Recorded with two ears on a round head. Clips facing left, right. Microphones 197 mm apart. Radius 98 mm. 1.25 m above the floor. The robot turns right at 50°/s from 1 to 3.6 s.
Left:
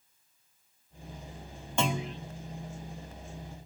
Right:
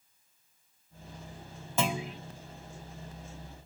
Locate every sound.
1.8 s a clunk: 5° right (ahead or behind), 0.8 m; by 2.2 s 10° right (ahead or behind), 0.8 m